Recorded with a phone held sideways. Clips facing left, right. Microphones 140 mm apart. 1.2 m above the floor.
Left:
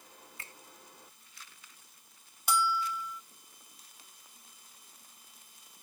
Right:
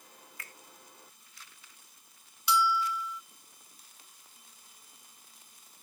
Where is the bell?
45° left (ahead or behind).